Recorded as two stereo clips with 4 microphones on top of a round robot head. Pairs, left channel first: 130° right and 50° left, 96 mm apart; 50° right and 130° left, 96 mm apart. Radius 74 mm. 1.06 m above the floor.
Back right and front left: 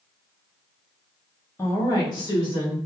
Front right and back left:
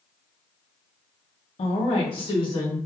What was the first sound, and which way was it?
A woman speaking, 65° right.